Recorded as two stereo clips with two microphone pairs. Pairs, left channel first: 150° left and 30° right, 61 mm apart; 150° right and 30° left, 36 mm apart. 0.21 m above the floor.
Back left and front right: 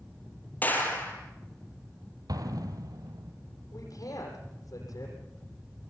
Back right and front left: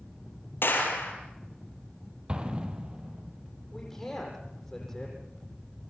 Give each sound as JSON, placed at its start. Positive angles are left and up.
{"t": 0.6, "sound": "a clap", "azimuth_deg": -150, "distance_m": 5.0}
{"t": 2.3, "sound": "an explosion", "azimuth_deg": -30, "distance_m": 2.0}
{"t": 3.7, "sound": "a man speaking", "azimuth_deg": 135, "distance_m": 8.5}